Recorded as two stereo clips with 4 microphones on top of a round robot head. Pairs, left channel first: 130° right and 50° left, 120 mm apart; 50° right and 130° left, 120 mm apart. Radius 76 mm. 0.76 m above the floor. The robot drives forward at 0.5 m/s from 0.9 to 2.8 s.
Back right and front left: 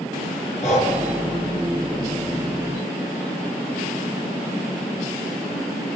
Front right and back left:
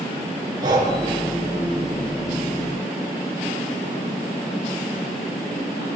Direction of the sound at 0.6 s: 165° right.